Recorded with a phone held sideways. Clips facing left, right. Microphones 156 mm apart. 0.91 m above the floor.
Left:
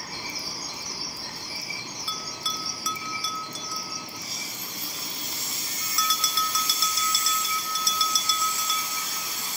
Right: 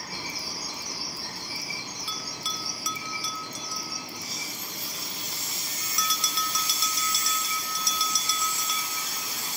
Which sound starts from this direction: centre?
A bell, at 2.1 s.